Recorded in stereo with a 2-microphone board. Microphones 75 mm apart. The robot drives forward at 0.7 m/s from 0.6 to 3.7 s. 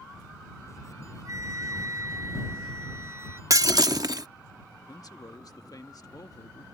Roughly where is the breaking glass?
Right.